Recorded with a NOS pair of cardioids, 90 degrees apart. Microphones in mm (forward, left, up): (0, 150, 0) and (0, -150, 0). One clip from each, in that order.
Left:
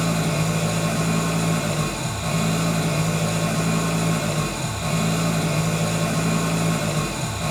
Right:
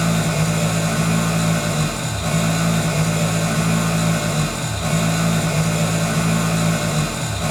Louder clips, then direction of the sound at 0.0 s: Right 3 dB; 25° right.